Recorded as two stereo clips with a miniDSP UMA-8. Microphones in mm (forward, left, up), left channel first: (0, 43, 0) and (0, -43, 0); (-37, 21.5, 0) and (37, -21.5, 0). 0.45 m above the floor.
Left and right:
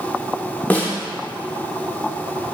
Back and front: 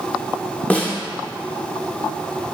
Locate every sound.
0.7 s a snare drum: 110° left, 0.5 m